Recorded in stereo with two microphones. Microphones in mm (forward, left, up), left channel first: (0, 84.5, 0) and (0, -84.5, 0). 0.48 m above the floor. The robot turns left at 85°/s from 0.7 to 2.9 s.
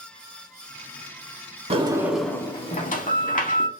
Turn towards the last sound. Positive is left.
turn(degrees=120)